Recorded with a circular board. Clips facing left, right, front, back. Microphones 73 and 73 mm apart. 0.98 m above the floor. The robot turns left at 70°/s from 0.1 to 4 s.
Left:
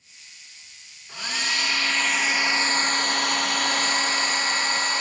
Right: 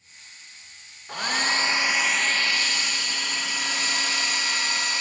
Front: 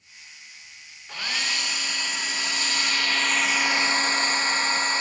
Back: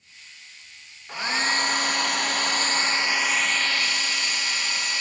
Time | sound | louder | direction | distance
1.1 | a hair dryer | right 4 dB, back 5 dB | 105° right | 0.9 m